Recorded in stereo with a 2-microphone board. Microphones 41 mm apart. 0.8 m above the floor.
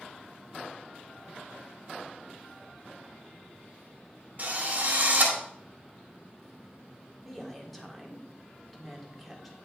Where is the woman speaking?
Centre (ahead or behind), 1.8 m.